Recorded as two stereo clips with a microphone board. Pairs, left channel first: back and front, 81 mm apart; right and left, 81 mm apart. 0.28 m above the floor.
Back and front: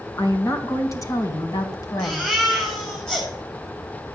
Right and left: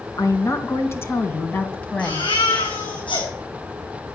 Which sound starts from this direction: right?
A baby crying, at 2.0 s.